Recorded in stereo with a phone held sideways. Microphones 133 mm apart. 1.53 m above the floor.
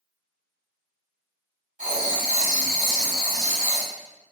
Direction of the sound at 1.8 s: 60° right (ahead or behind).